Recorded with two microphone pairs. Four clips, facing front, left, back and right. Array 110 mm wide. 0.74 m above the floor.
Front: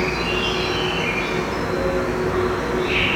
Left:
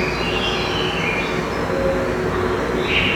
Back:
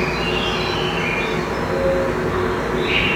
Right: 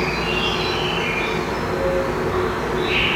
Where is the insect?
130° left, 0.9 m.